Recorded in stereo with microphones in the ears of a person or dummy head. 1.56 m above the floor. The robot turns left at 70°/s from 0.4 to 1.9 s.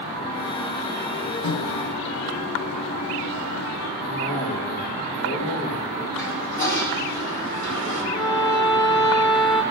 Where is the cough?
55° left (ahead or behind), 2.5 m.